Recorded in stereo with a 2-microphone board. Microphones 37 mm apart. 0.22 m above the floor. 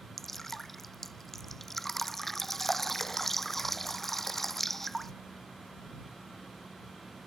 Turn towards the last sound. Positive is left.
turn(degrees=5)  # may be behind; listen again after turning